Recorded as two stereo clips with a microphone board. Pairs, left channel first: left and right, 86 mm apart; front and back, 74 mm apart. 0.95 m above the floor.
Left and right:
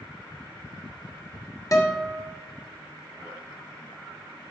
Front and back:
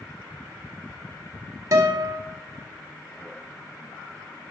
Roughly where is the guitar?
Behind left.